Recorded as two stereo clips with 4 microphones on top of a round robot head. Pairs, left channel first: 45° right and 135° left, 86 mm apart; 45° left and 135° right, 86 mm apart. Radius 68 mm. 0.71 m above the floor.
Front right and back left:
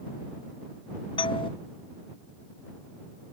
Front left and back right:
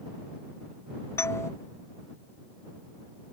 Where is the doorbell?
15° right.